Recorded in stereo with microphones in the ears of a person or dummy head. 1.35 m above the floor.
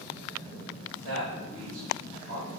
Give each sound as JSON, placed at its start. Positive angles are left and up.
{"t": 1.0, "sound": "a man speaking", "side_deg": -85, "distance_m": 1.9}